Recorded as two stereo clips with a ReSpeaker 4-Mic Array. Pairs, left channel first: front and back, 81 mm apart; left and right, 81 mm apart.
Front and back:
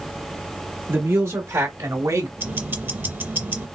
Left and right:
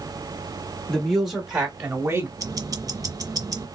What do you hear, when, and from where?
0.9 s a man speaking: 165° left, 0.9 m; by 2.3 s 145° right, 1.3 m
2.4 s ticking: 120° right, 0.6 m